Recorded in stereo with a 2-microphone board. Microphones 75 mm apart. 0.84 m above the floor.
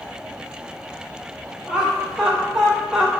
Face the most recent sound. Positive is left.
turn(degrees=-10)  # may be behind; listen again after turning